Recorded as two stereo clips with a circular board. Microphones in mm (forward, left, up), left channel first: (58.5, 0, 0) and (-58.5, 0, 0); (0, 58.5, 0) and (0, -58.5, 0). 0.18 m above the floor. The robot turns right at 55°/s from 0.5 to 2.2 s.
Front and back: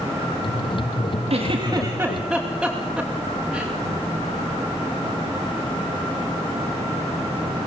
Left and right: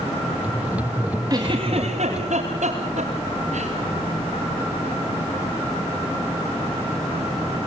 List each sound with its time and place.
1.3 s a giggle: 145° right, 7 m; by 3.7 s 95° right, 7 m